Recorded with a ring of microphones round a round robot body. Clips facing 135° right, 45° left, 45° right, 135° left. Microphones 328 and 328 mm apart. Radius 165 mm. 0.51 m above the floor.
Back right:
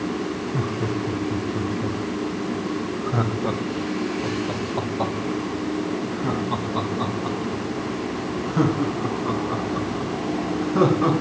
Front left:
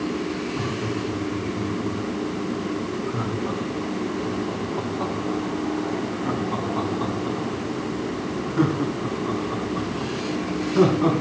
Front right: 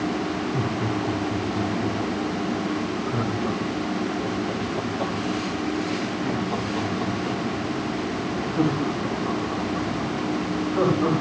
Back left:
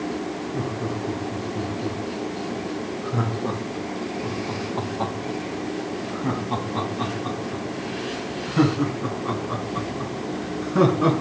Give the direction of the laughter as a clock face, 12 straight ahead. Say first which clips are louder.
Back right 1 dB, front right 2 dB; 4 o'clock.